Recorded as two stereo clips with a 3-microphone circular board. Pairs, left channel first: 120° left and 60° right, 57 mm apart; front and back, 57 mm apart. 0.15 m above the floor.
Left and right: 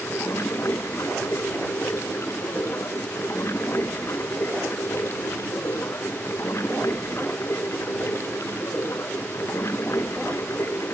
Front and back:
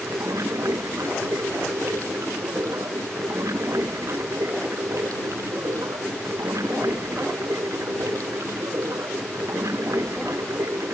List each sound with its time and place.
0.0 s running water: 155° left